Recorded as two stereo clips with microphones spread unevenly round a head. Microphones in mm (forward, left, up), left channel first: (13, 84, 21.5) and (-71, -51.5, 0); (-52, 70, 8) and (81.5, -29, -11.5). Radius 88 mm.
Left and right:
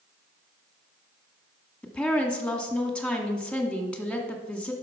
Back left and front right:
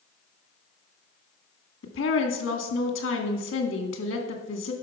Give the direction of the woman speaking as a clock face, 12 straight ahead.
7 o'clock.